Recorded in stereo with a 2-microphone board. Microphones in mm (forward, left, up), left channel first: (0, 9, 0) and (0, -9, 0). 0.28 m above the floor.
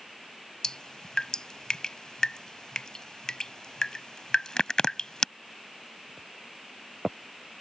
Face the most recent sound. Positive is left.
turn(degrees=45)  # may be behind; listen again after turning